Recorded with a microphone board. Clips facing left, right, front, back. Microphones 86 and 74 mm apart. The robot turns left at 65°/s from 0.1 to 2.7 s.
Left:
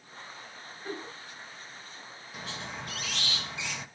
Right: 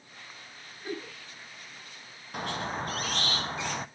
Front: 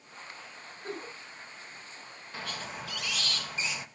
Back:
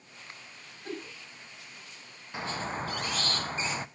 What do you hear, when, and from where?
0.8 s a giggle: 20° right, 6 m; by 1.1 s 40° right, 6 m
2.3 s a squeak: 110° right, 0.6 m; by 3.9 s 130° right, 0.6 m